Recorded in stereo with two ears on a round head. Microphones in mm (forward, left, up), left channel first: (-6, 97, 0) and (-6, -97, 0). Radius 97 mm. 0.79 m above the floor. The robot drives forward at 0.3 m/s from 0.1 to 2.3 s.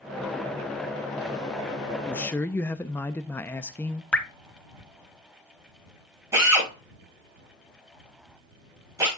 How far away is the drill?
About 6.5 m.